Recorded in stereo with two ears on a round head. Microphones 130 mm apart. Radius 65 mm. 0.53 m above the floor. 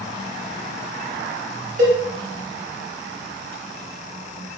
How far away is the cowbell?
About 0.8 m.